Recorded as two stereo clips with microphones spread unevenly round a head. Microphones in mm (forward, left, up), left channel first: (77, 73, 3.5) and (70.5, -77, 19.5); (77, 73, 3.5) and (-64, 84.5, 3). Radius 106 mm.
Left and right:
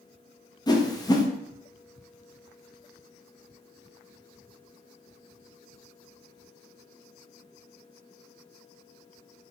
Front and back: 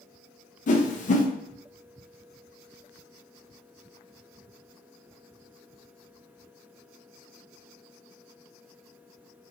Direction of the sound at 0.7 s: 20° left.